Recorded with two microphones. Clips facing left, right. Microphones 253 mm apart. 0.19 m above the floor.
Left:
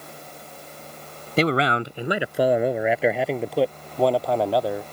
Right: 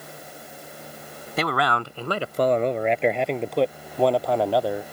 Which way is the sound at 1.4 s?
30° left (ahead or behind).